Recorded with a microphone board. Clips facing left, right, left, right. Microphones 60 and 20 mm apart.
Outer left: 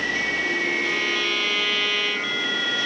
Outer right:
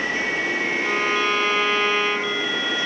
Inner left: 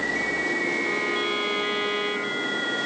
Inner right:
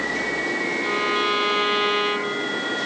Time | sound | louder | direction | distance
0.8 | a violin | outer right 3 dB, inner right 3 dB | 35° right (ahead or behind) | 1.1 m